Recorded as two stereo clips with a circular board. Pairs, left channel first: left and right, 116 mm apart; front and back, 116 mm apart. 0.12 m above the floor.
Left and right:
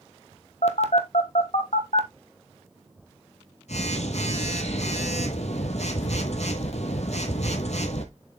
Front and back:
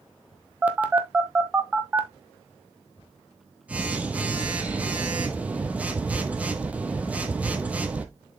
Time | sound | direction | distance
0.6 | a phone buzzing | 105° left | 1.3 m